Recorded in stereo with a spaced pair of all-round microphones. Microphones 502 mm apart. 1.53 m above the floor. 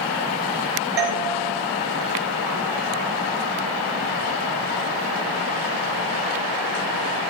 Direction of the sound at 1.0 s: 50° right (ahead or behind).